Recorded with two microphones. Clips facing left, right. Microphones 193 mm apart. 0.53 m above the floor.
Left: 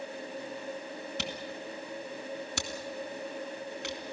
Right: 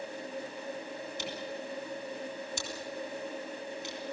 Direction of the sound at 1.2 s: 70° left (ahead or behind).